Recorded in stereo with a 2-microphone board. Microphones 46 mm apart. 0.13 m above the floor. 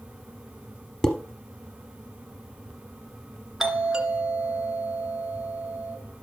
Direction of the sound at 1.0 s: 15° left (ahead or behind).